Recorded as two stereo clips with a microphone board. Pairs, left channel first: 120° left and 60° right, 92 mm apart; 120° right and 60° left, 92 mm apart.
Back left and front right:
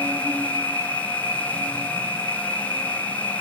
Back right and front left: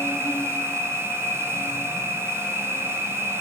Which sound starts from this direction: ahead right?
An insect, at 0.0 s.